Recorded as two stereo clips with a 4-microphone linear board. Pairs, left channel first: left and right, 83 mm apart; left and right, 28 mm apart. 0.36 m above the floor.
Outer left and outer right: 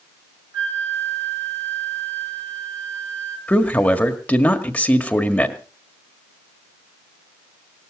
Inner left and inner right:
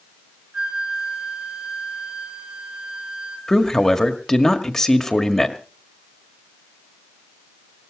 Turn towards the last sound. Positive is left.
turn(degrees=15)  # may be behind; listen again after turning